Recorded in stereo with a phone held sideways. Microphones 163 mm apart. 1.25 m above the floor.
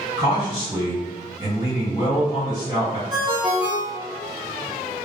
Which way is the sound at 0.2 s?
30° right (ahead or behind).